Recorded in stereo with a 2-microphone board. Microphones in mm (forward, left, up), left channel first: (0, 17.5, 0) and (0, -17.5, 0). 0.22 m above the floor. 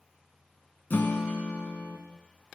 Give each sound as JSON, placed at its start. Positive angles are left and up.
{"t": 0.9, "sound": "a guitar", "side_deg": 65, "distance_m": 0.7}